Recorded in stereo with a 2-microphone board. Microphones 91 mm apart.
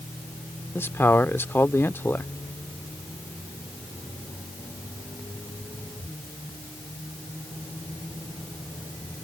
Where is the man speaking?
25° left (ahead or behind).